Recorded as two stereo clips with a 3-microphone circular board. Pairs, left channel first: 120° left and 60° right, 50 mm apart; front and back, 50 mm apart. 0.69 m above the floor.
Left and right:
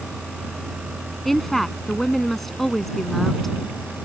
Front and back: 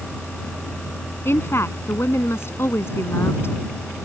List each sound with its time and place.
1.2 s a woman speaking: 30° left